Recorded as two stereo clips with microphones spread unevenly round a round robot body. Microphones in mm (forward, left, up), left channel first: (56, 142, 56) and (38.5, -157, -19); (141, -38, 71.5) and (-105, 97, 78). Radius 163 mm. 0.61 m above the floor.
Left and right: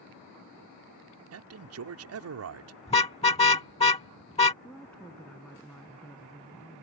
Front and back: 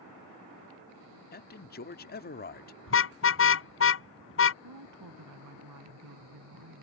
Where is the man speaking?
80° right.